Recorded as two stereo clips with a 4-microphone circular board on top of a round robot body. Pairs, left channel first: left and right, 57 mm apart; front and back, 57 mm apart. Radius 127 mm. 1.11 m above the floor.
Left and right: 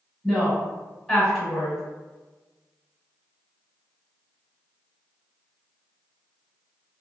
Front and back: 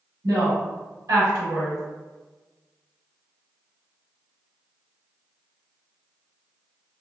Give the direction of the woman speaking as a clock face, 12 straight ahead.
6 o'clock.